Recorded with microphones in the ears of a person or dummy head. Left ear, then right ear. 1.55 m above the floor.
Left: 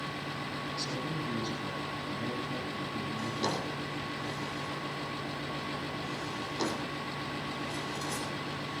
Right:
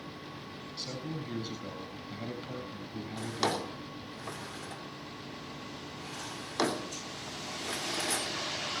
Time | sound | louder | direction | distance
0.8 | a man speaking | even | 5° right (ahead or behind) | 7.5 m
3.2 | a drawer | right 3 dB | 50° right (ahead or behind) | 2.5 m